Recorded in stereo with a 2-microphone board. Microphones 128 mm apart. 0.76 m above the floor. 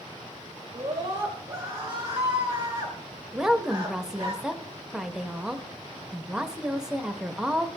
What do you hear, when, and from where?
0.7 s a scream: 30° right (ahead or behind), 1.6 m
3.3 s a woman speaking: 5° right (ahead or behind), 0.7 m